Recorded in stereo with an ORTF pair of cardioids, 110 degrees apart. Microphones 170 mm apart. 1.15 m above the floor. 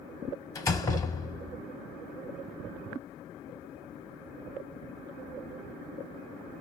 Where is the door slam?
20° left, 0.7 m.